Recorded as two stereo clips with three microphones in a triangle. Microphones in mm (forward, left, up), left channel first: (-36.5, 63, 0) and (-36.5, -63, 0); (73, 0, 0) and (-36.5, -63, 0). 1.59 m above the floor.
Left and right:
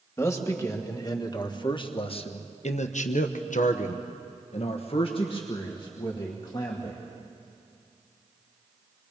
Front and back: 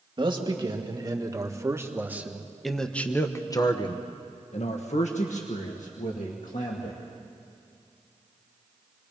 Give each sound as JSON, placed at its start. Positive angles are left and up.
{"t": 0.2, "sound": "a man speaking", "azimuth_deg": 160, "distance_m": 2.5}